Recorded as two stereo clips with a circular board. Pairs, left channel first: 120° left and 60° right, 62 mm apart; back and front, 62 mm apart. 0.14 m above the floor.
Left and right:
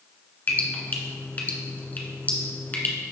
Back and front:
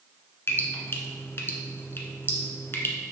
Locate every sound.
0.5 s dripping: 160° left, 1.4 m